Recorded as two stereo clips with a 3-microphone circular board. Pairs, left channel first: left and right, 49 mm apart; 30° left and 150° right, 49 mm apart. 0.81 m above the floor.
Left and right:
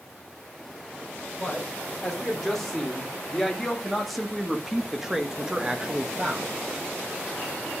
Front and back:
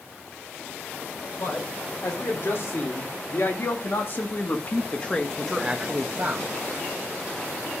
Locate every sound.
1.4 s a man speaking: 10° left, 3.5 m; by 6.5 s 150° right, 1.1 m